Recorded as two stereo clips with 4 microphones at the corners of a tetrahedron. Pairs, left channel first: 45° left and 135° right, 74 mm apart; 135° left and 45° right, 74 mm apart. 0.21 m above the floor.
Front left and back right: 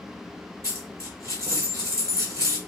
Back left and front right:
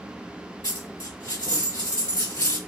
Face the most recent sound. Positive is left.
turn(degrees=180)